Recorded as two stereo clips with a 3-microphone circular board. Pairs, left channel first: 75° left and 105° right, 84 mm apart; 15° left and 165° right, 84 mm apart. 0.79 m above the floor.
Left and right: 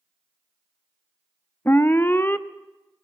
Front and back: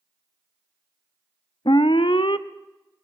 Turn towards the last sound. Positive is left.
turn(degrees=10)